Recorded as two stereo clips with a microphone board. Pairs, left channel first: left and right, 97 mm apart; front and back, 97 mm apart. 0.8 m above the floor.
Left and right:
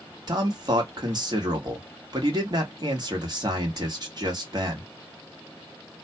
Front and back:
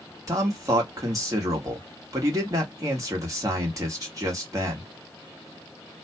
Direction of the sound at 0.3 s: 130° right.